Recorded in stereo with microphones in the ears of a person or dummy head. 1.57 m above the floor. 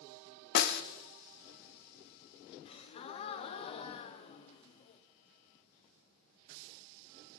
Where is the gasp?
35° left (ahead or behind), 0.6 m.